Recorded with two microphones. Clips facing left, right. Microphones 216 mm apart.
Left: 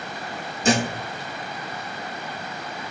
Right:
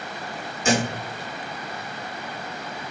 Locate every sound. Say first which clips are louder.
0.6 s a thud: left 1 dB; 35° left (ahead or behind), 3.5 m